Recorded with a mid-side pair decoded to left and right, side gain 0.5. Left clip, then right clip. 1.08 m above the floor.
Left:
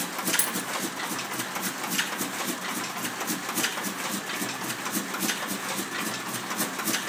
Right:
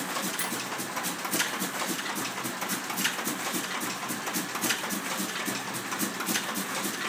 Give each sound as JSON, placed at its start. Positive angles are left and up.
{"t": 0.4, "sound": "a dropped coin", "azimuth_deg": 55, "distance_m": 1.0}